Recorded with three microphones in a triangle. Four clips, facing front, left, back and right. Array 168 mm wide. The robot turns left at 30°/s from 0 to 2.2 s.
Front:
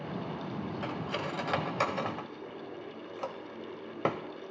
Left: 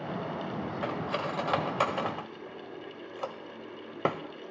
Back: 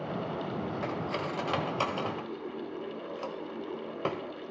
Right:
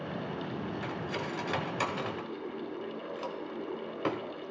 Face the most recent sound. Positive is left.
turn(degrees=65)